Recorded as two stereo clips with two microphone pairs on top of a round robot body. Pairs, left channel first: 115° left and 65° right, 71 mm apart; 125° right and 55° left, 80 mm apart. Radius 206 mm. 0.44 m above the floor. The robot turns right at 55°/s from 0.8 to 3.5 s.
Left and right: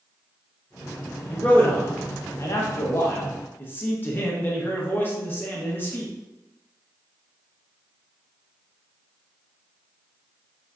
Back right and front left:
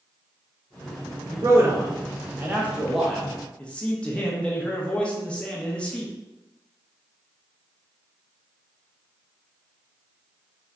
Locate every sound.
1.3 s a man speaking: 40° left, 0.9 m; by 6.1 s 165° left, 0.9 m